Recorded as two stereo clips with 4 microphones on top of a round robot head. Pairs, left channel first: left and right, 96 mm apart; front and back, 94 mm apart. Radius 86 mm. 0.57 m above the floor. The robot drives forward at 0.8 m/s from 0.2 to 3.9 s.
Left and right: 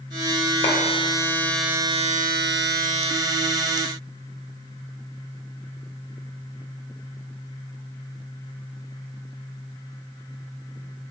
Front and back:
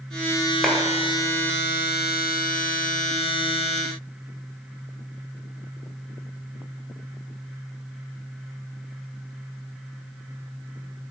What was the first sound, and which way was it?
A clap, 90° left.